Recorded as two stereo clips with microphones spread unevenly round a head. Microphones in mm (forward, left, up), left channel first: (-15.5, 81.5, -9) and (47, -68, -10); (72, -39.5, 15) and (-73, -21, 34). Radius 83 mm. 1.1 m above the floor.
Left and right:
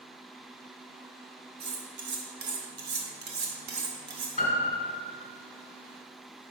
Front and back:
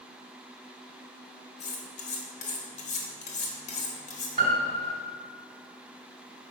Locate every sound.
1.6 s cutlery clinking: 50° right, 1.2 m
4.4 s a piano: 145° left, 1.2 m